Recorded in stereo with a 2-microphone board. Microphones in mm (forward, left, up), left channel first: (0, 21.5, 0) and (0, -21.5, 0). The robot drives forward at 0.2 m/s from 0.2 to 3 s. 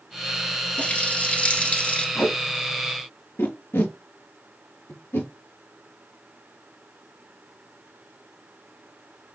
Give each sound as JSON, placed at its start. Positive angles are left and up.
{"t": 0.8, "sound": "a running tap", "side_deg": 35, "distance_m": 0.9}
{"t": 2.1, "sound": "tape being pulled", "side_deg": 75, "distance_m": 4.0}